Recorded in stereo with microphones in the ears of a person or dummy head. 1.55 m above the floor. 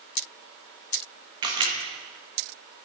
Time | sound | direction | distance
1.4 | a camera shutter | 20° right (ahead or behind) | 1.1 m